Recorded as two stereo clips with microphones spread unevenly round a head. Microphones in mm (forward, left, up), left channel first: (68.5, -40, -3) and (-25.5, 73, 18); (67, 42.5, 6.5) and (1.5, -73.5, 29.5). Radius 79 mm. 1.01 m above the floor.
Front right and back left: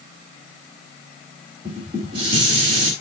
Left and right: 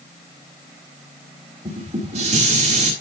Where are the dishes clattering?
170° right, 5 m.